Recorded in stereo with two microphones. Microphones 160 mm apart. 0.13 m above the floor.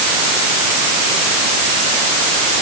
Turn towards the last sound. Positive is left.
No sound to turn to.